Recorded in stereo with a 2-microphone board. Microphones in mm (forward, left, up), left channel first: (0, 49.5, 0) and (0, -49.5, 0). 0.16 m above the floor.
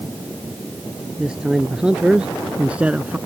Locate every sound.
1.2 s a man speaking: 10° right (ahead or behind); by 3.2 s 15° right (ahead or behind)